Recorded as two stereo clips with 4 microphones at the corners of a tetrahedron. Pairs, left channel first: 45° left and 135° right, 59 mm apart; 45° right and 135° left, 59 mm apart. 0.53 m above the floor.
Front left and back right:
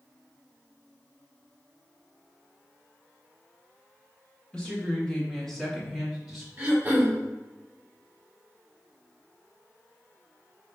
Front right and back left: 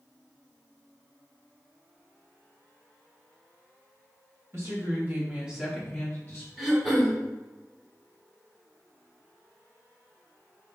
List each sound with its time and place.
4.5 s a woman speaking: 115° left, 1.3 m; by 6.5 s 65° right, 1.0 m
6.6 s throat clearing: 140° right, 1.2 m